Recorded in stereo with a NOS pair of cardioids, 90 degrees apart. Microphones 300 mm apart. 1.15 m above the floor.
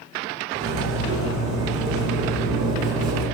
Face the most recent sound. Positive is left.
turn(degrees=-65)